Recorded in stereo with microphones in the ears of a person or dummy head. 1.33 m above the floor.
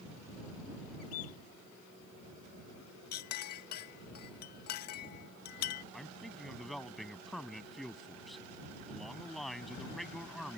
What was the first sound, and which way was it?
A bird, 85° left.